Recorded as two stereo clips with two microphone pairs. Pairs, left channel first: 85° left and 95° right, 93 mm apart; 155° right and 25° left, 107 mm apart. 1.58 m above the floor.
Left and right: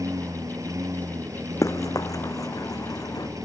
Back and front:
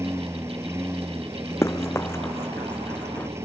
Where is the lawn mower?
40° right.